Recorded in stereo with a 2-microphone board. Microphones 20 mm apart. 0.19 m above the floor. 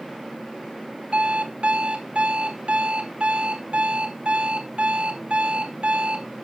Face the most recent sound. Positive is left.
turn(degrees=-70)  # may be behind; listen again after turning